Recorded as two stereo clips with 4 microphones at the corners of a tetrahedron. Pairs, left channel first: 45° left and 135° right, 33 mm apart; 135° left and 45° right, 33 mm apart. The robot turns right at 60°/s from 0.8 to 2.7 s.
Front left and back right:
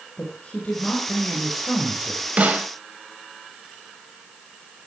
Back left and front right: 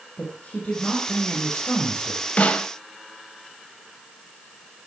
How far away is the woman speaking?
About 4 m.